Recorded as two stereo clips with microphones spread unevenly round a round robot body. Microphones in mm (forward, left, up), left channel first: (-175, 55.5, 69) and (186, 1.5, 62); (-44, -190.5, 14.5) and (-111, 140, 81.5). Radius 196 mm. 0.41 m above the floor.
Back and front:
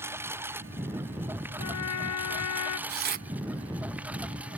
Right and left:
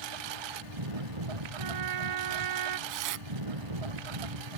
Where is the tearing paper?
60° left.